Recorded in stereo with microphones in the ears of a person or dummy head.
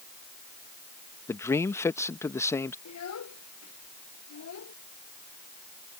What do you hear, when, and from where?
1.3 s a man speaking: 15° left (ahead or behind)
2.9 s a child speaking: 90° left